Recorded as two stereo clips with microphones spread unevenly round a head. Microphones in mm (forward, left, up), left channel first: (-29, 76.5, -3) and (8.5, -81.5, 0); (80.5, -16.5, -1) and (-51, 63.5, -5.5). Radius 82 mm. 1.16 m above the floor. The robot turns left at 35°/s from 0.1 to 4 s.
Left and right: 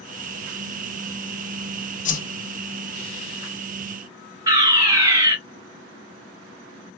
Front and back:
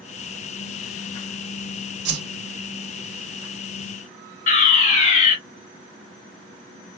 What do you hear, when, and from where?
2.0 s a whoosh: 145° left, 0.6 m; by 2.2 s 140° left, 0.6 m
4.5 s a fire alarm: 10° right, 1.3 m